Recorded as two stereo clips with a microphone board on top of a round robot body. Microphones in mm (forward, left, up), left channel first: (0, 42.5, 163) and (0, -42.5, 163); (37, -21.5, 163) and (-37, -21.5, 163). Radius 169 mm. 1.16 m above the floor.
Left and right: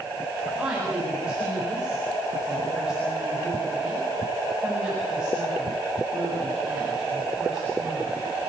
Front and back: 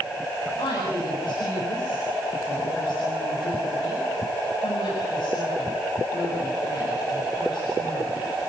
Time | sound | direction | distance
0.6 | a woman speaking | 10° right | 8 m